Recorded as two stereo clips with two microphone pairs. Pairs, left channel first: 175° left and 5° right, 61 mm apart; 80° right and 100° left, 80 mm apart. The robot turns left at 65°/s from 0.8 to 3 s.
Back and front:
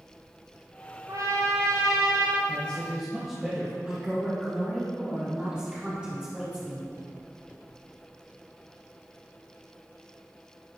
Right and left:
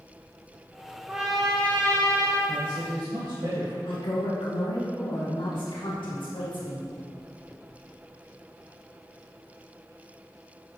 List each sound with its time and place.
1.1 s a trumpet: 25° left, 1.4 m; by 2.4 s 60° right, 1.4 m
2.5 s a man speaking: 110° left, 1.6 m; by 3.8 s 80° left, 1.6 m
3.9 s a woman speaking: 80° right, 1.8 m